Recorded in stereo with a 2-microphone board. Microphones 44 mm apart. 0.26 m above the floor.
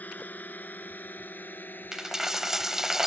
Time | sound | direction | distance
0.0 | a drone | 35° left (ahead or behind) | ?
1.9 | a dropped coin | 10° right (ahead or behind) | ?